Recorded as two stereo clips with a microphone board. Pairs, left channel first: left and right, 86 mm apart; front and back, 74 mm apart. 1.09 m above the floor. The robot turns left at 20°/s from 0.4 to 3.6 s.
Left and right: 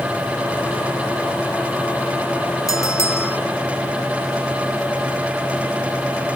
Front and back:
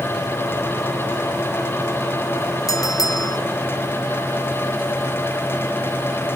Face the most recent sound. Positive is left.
turn(degrees=20)